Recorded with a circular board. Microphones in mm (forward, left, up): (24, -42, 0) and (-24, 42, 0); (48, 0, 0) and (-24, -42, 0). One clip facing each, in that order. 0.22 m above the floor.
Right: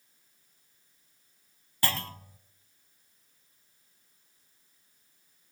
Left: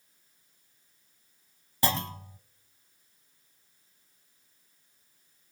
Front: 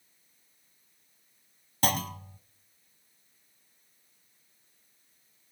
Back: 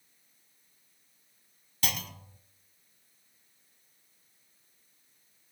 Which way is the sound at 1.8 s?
55° left.